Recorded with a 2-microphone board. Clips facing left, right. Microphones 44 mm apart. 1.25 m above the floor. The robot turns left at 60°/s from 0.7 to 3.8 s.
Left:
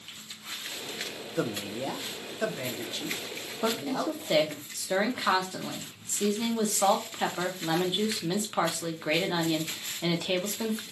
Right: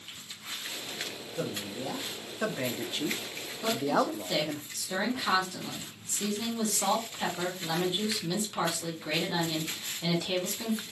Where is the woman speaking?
45° left (ahead or behind), 0.7 m; by 10.8 s 35° left (ahead or behind), 0.7 m.